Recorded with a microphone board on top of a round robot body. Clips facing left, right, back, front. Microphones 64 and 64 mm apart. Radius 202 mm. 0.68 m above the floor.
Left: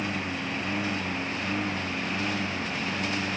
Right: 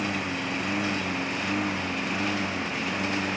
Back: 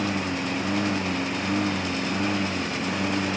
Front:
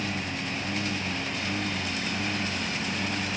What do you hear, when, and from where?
0.0 s a lawn mower: 160° right